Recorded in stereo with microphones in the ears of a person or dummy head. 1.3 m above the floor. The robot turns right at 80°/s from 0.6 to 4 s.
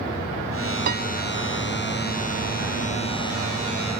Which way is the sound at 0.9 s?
40° right (ahead or behind).